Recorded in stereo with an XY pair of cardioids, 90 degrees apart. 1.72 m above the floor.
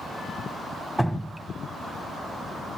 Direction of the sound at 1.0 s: 5° right.